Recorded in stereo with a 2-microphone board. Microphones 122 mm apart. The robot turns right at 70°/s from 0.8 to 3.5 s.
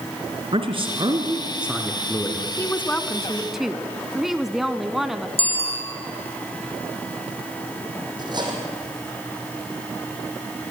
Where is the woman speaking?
20° left (ahead or behind), 1.0 m; by 5.3 s centre (ahead or behind), 1.0 m.